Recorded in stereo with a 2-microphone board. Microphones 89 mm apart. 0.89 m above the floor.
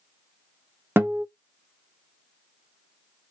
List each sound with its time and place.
1.0 s a guitar: 25° right (ahead or behind), 0.7 m